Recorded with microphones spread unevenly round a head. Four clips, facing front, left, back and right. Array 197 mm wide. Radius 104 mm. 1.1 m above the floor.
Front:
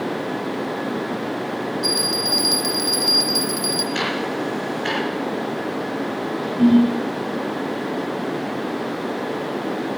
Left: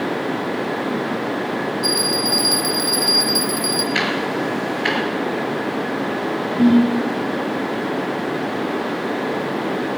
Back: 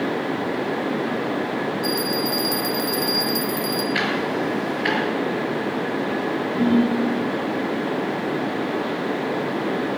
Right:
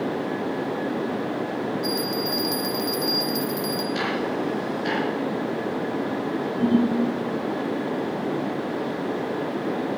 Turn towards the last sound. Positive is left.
turn(degrees=85)